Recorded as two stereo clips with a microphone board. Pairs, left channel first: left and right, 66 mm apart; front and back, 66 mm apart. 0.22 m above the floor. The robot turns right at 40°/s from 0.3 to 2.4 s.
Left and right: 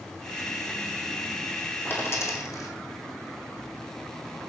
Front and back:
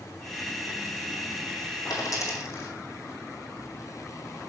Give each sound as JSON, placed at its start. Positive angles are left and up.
{"t": 1.9, "sound": "a dropped coin", "azimuth_deg": 30, "distance_m": 2.5}